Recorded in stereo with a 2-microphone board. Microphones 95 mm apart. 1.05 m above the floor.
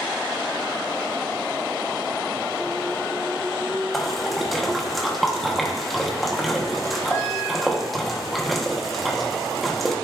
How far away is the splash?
About 1.0 m.